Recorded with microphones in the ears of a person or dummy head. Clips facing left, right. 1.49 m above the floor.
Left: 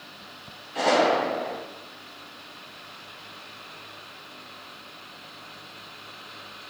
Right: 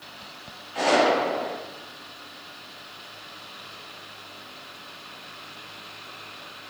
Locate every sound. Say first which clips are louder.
0.8 s a gunshot: right 1 dB; 10° left (ahead or behind), 2.5 m